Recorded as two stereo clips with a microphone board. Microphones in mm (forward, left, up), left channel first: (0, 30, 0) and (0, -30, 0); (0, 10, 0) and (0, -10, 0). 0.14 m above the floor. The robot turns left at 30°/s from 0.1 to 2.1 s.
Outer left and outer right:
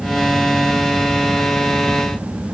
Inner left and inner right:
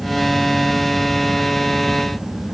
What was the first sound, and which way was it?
Only background noise.